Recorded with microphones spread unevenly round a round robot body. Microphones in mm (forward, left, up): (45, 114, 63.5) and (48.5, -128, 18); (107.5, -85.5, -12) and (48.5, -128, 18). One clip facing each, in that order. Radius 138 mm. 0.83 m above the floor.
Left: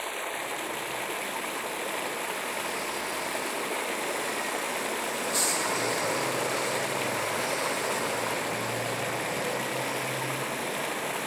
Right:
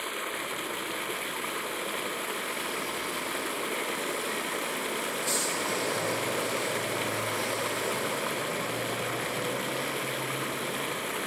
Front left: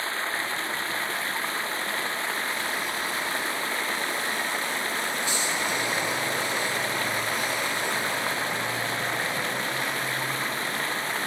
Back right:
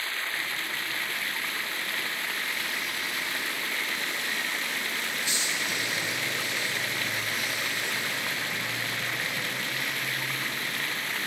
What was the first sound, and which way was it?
Running water, 20° right.